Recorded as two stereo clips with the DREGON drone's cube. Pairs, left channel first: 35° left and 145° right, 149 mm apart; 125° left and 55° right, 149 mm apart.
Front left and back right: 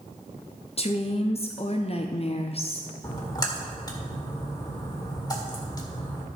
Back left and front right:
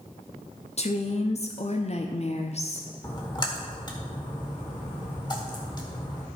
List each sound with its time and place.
0.8 s a woman speaking: 80° left, 0.6 m
3.0 s a splash: 85° left, 1.7 m